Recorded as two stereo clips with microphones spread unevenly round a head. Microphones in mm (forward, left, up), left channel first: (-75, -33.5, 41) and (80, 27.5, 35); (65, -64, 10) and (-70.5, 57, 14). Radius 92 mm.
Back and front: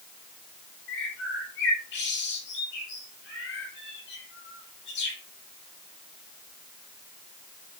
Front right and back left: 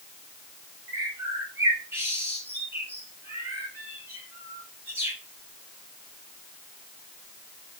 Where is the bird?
145° right, 6.5 m.